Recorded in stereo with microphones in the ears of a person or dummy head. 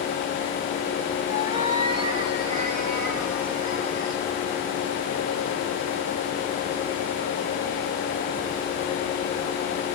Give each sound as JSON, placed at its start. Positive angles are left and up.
{"t": 1.3, "sound": "a cat meowing", "side_deg": -20, "distance_m": 4.5}